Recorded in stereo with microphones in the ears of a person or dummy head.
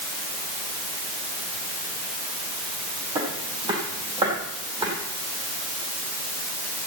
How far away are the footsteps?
About 4 m.